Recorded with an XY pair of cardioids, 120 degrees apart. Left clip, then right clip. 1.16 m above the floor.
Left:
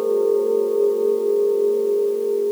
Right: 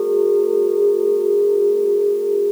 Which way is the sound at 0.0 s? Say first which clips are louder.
Right 2 dB; 55° left.